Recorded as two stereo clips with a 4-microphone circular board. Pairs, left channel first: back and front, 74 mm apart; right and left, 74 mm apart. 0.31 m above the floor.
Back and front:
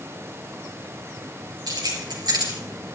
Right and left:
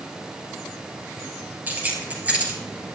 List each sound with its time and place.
1.7 s keys jangling: 25° left, 4 m; by 3.0 s 15° left, 3.5 m